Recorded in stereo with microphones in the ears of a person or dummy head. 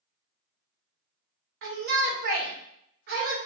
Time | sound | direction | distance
1.6 | a shout | 45° right (ahead or behind) | 0.8 m